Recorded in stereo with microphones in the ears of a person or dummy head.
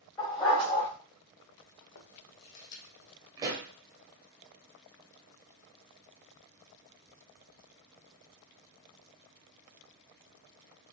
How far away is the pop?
About 0.7 m.